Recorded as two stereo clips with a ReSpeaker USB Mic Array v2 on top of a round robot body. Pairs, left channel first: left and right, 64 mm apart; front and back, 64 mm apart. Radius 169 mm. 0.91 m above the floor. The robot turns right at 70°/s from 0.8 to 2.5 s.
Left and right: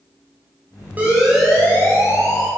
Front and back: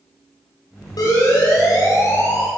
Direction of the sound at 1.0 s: 25° right.